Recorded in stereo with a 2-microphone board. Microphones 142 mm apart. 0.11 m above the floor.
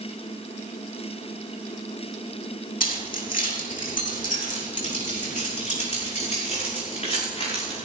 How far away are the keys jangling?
About 3.5 m.